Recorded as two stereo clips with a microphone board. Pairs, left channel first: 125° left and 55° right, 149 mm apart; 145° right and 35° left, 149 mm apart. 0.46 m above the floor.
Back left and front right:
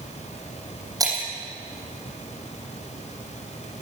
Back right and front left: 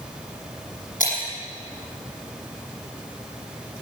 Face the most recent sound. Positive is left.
turn(degrees=-120)